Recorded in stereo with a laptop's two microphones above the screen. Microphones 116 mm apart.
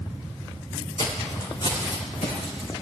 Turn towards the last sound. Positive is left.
turn(degrees=75)  # may be behind; listen again after turning